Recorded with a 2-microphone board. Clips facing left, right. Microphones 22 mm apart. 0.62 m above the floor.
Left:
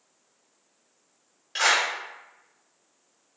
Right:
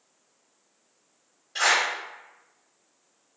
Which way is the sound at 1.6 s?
60° left (ahead or behind).